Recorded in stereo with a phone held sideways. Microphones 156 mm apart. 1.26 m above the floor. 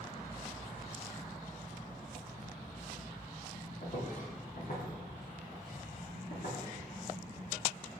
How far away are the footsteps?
About 2 m.